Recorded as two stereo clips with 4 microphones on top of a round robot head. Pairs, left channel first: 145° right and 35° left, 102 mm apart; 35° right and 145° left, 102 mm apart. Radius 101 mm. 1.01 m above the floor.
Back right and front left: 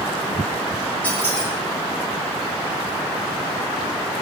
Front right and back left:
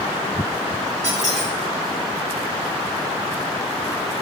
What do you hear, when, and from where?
1.0 s a squeak: 140° left, 0.9 m